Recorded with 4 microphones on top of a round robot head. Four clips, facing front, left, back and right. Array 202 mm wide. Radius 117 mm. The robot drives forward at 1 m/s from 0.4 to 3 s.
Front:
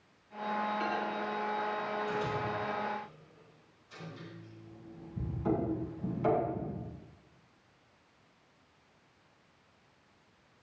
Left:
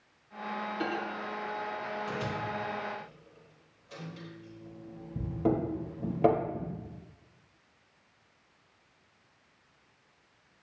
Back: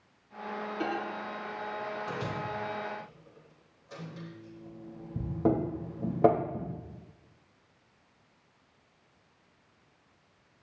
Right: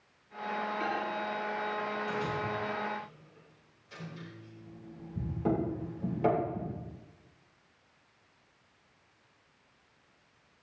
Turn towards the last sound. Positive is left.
turn(degrees=160)